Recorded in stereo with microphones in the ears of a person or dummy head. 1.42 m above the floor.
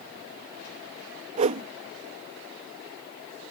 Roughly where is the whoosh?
Right.